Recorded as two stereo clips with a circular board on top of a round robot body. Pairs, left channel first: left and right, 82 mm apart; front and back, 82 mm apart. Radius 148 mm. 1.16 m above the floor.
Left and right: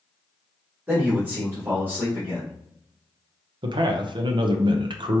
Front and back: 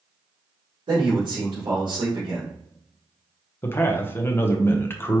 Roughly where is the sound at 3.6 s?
Ahead right.